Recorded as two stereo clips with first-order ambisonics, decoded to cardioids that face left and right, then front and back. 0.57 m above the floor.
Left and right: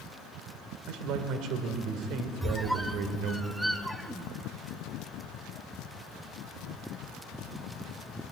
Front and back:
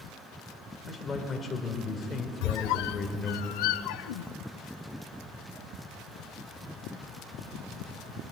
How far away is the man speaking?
About 2.5 m.